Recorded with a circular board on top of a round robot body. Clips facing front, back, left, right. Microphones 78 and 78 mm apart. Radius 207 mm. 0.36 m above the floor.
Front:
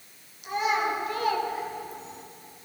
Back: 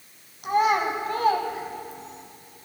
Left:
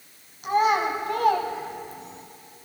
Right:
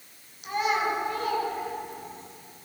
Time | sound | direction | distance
0.4 | a child speaking | 140° left | 3 m